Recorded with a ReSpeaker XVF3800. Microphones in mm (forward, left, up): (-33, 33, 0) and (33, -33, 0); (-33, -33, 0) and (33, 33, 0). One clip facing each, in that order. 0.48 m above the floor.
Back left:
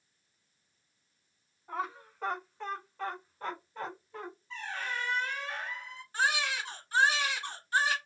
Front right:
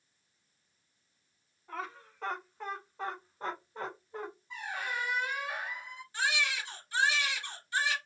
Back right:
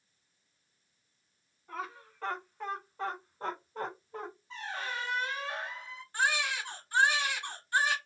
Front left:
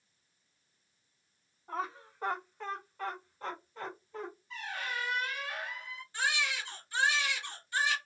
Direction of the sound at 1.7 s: 75° left.